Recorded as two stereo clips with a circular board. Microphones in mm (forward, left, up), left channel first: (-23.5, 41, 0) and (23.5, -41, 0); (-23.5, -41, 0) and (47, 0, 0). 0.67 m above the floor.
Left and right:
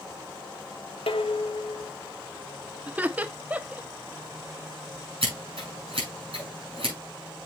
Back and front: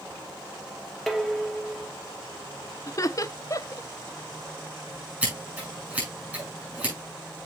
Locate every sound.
1.1 s dishes clattering: 120° left, 1.0 m
2.9 s laughter: 125° right, 0.6 m
5.2 s scissors: 40° right, 5 m